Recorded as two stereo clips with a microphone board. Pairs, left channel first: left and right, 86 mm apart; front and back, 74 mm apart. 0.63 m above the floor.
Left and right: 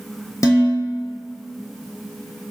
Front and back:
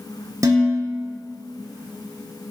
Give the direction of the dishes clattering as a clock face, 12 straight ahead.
7 o'clock.